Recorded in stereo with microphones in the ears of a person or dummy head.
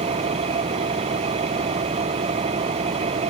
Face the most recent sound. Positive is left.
turn(degrees=-30)  # may be behind; listen again after turning